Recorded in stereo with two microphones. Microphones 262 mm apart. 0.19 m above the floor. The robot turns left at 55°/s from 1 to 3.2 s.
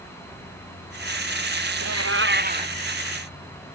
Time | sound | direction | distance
1.8 | a cat meowing | 110° right | ?